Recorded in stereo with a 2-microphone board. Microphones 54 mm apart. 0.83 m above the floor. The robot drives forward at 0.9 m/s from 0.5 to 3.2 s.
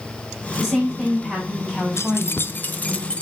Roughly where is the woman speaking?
Centre.